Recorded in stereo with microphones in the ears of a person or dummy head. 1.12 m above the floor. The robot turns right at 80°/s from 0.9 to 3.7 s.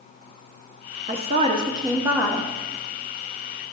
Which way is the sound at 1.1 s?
25° right (ahead or behind).